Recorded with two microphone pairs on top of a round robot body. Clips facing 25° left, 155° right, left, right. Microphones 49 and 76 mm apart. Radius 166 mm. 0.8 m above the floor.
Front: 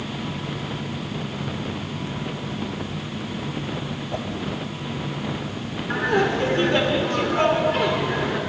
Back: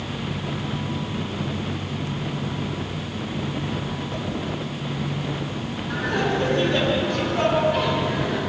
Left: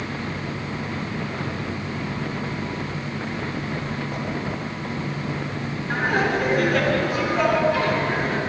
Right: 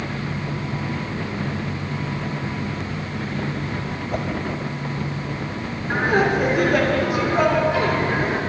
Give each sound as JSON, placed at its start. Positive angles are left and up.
{"t": 4.1, "sound": "a whoosh", "azimuth_deg": -45, "distance_m": 0.7}
{"t": 5.9, "sound": "laughter", "azimuth_deg": -35, "distance_m": 2.5}